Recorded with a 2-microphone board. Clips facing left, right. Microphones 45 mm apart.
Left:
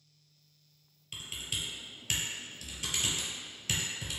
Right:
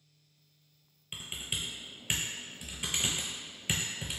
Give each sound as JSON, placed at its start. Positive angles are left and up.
{"t": 1.1, "sound": "typing on a keyboard", "side_deg": -20, "distance_m": 0.5}